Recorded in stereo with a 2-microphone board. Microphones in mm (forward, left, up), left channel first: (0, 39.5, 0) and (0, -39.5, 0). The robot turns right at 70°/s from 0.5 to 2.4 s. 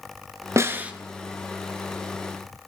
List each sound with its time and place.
0.6 s a snare drum: 40° right (ahead or behind), 1.0 m; by 0.9 s 15° right (ahead or behind), 1.0 m